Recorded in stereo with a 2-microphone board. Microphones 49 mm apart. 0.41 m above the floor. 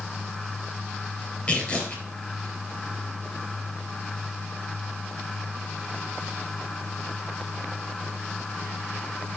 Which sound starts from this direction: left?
Tearing paper, at 1.5 s.